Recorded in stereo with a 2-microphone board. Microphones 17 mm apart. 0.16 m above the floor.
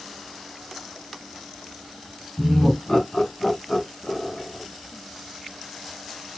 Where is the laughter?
25° left (ahead or behind), 1.4 m; by 4.6 s 35° left (ahead or behind), 2 m.